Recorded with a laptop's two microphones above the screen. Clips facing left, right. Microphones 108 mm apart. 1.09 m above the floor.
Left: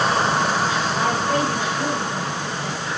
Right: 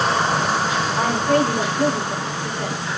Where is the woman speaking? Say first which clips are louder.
Right 5 dB; 60° right (ahead or behind), 5 m.